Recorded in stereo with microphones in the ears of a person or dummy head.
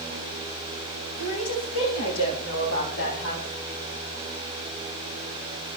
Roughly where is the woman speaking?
Left.